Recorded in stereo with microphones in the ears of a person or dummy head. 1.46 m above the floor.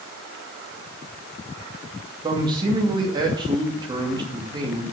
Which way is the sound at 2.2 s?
20° right (ahead or behind).